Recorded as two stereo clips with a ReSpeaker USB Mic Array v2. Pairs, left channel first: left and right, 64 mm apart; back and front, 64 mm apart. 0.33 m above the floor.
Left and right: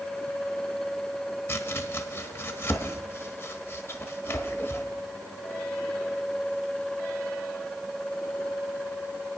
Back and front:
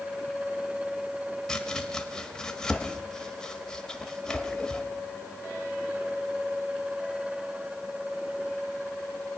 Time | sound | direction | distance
1.5 | chopping | 105° left | 1.1 m